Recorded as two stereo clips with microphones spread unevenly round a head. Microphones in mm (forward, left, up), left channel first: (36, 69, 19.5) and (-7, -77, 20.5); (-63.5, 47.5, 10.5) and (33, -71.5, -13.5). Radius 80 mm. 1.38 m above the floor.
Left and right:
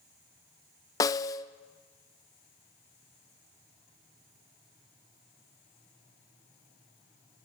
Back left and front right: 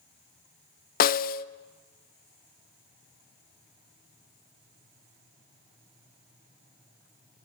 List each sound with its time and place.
1.0 s a snare drum: 145° left, 0.7 m